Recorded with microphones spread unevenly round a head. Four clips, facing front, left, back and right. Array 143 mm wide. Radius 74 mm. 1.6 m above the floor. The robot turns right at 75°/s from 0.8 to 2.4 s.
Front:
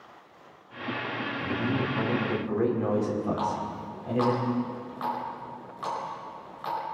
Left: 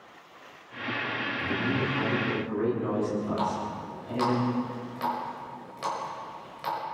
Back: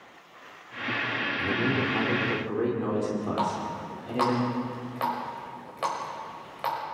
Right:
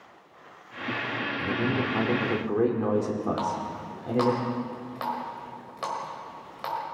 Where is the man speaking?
165° right, 5.5 m; by 4.4 s 90° right, 5.5 m.